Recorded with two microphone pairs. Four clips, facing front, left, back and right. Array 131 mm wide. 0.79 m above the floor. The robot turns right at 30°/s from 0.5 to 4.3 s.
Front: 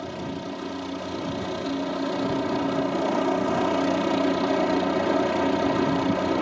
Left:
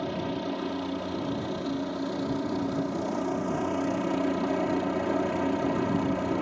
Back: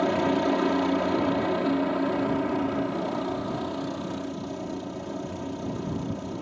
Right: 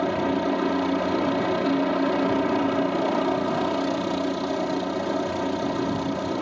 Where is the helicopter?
130° right; by 6.4 s 15° right.